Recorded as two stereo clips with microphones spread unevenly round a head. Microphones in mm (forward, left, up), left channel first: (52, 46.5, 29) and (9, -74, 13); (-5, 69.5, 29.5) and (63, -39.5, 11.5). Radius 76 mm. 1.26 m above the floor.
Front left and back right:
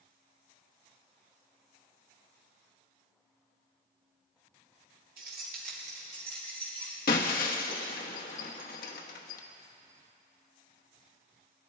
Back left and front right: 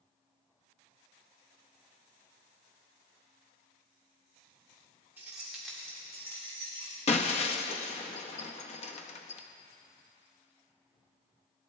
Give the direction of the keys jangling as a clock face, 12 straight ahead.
5 o'clock.